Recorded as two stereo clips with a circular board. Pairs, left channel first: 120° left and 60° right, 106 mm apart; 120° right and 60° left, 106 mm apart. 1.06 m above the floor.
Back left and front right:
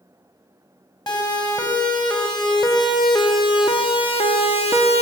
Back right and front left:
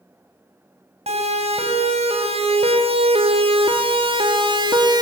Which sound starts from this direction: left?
A siren, at 1.1 s.